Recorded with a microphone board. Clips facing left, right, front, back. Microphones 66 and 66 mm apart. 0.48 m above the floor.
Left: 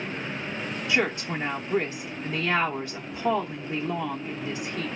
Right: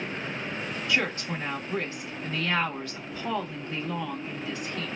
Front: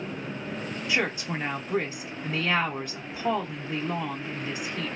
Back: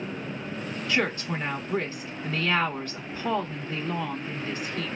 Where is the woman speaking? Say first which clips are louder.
Left 3 dB, back 1 dB; 50° left, 0.7 m.